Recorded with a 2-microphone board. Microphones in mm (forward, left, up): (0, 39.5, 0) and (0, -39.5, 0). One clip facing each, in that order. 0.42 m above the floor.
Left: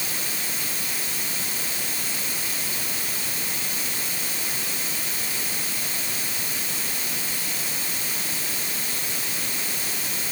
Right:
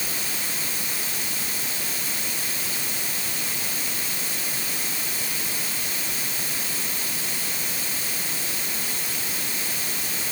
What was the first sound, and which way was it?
Only background noise.